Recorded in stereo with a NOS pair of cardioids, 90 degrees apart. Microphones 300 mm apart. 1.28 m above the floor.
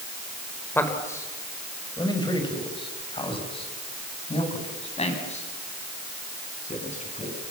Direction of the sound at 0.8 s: 5° left.